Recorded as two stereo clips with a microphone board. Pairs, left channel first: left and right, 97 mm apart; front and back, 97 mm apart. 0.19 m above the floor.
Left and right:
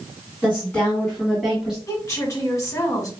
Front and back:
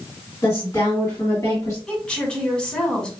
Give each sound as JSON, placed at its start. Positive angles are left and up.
{"t": 0.4, "sound": "a woman speaking", "azimuth_deg": 30, "distance_m": 2.0}
{"t": 1.9, "sound": "a woman speaking", "azimuth_deg": 75, "distance_m": 1.2}